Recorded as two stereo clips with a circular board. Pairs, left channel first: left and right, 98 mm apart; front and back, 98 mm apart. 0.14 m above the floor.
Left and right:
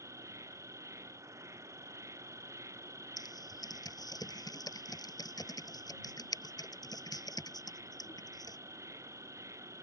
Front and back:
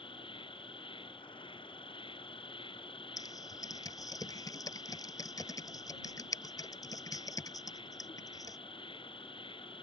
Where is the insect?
30° right.